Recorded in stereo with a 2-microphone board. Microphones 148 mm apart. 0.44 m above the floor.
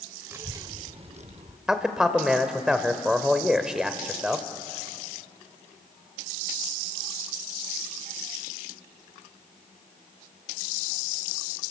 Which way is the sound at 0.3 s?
15° right (ahead or behind).